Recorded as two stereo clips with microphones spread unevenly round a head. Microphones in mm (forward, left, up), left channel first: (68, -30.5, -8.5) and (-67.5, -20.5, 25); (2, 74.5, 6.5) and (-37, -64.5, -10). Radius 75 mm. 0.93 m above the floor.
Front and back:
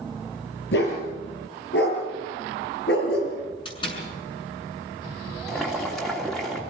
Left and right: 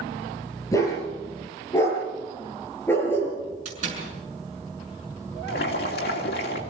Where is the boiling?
80° left, 2.5 m.